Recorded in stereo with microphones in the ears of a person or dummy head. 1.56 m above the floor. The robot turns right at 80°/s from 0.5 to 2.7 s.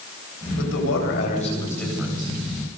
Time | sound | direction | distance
0.6 | a man speaking | 65° left | 9.5 m